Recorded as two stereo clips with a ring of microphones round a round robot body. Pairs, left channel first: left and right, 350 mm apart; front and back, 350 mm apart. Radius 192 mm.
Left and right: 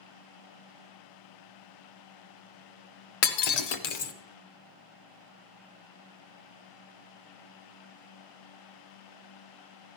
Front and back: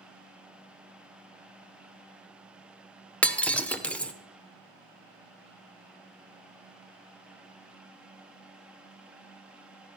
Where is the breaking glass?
85° left, 1.1 m.